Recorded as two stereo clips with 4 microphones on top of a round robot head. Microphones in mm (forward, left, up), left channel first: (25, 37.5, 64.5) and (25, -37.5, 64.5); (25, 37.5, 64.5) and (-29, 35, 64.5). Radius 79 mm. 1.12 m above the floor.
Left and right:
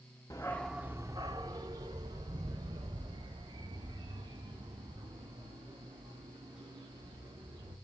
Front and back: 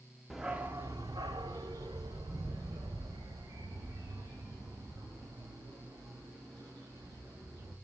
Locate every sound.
0.3 s a dog barking: 95° left, 0.7 m; by 7.7 s 130° right, 6 m